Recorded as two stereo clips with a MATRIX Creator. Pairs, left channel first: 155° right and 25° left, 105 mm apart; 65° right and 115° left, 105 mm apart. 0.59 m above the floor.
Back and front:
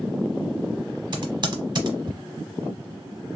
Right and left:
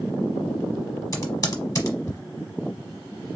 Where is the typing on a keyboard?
15° right, 0.9 m.